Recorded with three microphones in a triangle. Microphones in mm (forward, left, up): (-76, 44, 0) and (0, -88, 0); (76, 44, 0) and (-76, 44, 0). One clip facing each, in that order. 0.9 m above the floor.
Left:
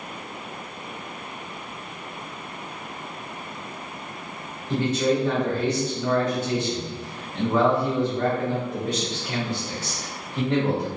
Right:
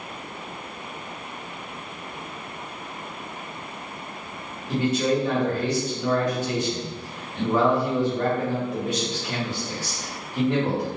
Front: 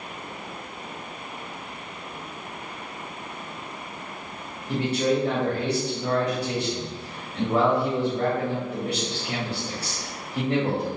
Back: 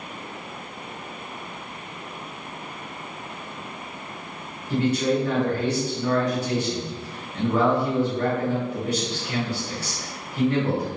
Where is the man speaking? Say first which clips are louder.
Even, back 1 dB; 20° left, 1.4 m.